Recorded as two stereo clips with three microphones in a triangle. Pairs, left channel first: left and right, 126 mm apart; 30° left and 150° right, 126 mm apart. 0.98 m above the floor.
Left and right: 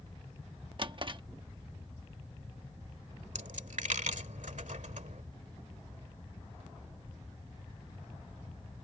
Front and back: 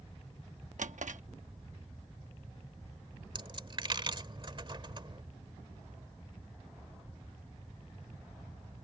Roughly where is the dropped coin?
Right.